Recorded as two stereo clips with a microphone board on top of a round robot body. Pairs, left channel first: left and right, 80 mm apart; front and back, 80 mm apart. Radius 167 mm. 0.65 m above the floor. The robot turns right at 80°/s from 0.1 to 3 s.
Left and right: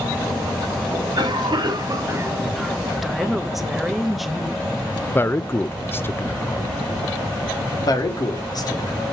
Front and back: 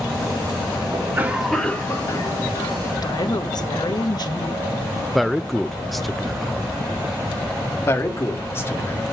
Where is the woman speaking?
Straight ahead, 1.3 m.